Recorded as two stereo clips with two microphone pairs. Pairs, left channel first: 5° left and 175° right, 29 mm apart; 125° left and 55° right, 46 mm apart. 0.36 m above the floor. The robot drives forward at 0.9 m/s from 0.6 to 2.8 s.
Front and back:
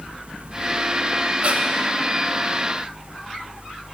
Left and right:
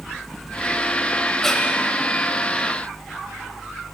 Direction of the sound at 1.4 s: 155° right.